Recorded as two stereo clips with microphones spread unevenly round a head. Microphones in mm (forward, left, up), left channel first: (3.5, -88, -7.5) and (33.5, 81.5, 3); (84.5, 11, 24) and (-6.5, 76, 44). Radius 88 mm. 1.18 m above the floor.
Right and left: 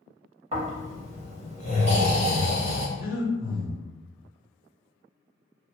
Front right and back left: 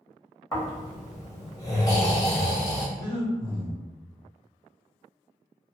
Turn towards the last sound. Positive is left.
turn(degrees=25)